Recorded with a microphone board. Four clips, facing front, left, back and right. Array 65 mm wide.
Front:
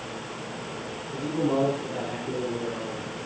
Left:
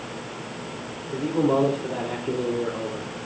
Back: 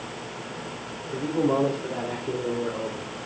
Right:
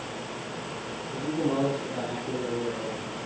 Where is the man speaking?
125° left, 3.5 m.